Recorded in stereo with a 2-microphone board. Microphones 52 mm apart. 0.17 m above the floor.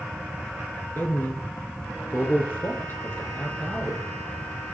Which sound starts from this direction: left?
A man speaking, at 0.9 s.